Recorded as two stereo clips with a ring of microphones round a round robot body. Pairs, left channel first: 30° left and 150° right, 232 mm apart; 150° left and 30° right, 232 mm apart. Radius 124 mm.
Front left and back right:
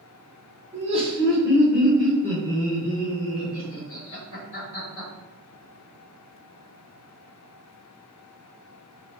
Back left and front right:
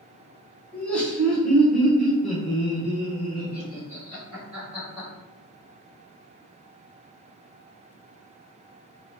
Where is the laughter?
130° right, 1.2 m; by 5.1 s 50° left, 2.0 m.